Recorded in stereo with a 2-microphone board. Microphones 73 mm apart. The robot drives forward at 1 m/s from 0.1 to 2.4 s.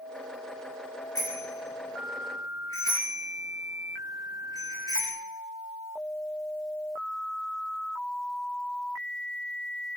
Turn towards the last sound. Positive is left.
turn(degrees=60)  # may be behind; listen again after turning